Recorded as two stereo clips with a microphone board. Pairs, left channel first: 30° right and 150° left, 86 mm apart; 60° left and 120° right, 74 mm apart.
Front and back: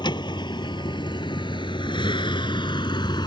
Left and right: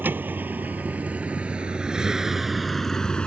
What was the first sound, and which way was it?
A vehicle, 55° right.